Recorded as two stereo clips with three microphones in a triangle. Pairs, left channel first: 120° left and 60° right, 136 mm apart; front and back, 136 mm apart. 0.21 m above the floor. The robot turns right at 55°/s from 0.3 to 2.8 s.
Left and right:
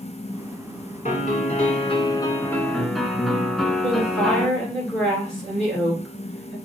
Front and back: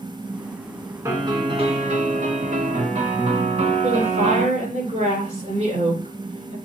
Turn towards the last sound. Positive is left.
turn(degrees=-155)